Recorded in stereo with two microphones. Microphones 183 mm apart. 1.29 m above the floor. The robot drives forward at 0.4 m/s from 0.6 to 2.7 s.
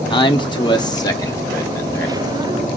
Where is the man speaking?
25° left (ahead or behind), 0.8 m; by 2.2 s 15° left (ahead or behind), 1.4 m.